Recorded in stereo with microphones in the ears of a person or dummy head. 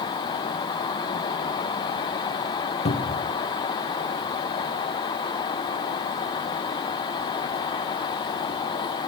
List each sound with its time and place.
2.9 s a cupboard door: 35° left (ahead or behind), 0.7 m